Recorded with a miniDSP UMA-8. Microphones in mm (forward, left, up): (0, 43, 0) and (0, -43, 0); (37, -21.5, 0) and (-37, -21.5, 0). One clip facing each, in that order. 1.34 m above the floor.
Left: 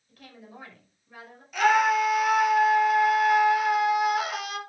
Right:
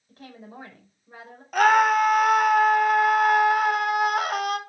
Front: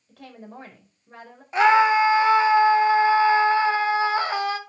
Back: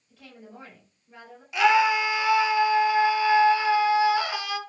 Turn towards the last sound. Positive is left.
turn(degrees=-50)